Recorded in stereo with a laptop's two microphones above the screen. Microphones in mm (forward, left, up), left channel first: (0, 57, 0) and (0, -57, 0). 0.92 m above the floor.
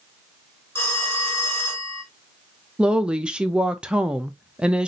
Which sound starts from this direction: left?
A phone ringing, at 0.8 s.